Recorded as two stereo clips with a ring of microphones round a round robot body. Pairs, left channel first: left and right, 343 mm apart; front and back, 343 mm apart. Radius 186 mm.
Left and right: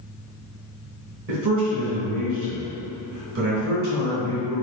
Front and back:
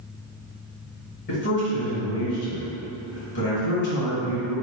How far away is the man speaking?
About 1.4 m.